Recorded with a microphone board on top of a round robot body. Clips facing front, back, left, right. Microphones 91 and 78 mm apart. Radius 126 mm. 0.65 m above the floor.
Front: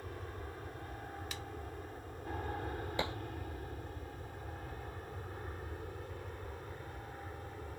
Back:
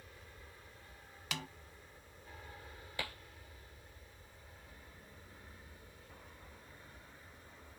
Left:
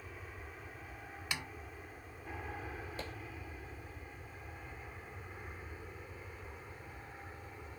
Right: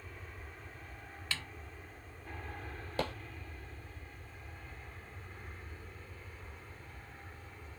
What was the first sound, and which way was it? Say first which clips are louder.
An aircraft: front 12 dB, left 1 dB; 5° left.